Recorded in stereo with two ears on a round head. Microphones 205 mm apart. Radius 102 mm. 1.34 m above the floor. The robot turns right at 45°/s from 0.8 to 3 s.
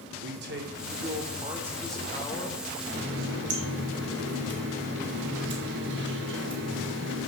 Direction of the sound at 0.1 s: 50° right.